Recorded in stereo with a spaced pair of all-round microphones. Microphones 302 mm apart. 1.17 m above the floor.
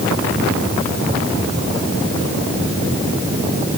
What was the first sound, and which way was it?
Only background noise.